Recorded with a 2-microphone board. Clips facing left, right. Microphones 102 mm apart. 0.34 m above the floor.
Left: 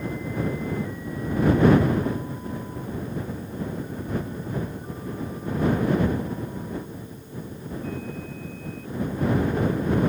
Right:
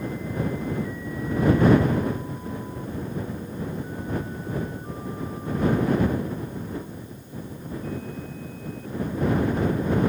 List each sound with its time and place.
Only background noise.